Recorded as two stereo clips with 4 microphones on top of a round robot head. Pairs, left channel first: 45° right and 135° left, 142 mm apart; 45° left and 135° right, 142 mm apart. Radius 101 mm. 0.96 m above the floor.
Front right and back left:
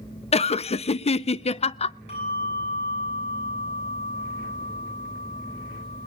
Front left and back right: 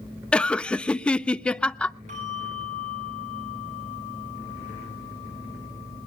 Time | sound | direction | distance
0.3 | laughter | 35° right | 0.6 m
2.1 | a bell | 95° right | 7.5 m